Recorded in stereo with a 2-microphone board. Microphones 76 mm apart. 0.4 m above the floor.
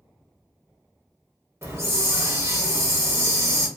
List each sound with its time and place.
1.6 s a hiss: 35° right (ahead or behind), 0.7 m